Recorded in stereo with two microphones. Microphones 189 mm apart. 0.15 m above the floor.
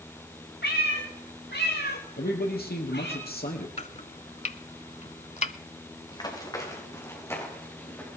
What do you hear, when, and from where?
0.6 s a cat meowing: 80° left, 5 m
2.2 s a man speaking: 60° left (ahead or behind), 4 m
3.8 s chopping: 40° left (ahead or behind), 0.6 m
6.1 s running footsteps: 25° left (ahead or behind), 5 m; by 8.2 s 10° left (ahead or behind), 7.5 m